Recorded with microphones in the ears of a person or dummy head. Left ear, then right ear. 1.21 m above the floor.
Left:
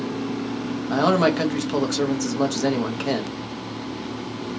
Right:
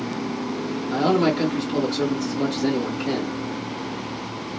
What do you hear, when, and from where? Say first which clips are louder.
0.9 s a man speaking: left 2 dB; 50° left (ahead or behind), 1.0 m